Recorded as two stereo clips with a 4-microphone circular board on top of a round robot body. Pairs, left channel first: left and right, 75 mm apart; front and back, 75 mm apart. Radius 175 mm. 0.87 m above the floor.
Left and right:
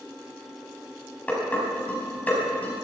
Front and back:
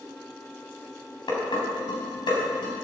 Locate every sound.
1.3 s dishes clattering: 20° left, 4.5 m